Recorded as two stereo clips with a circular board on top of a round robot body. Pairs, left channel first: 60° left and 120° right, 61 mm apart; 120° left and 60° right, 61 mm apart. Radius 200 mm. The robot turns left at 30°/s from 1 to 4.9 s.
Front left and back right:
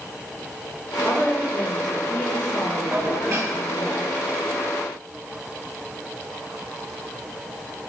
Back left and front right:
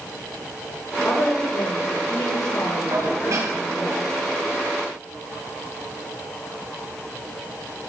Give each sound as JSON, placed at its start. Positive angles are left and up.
{"t": 1.0, "sound": "a woman speaking", "azimuth_deg": 155, "distance_m": 3.5}
{"t": 2.9, "sound": "dishes clattering", "azimuth_deg": -75, "distance_m": 4.0}